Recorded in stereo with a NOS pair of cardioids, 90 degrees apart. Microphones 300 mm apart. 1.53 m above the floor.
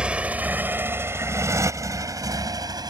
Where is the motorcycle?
5° right; by 2.9 s 15° right.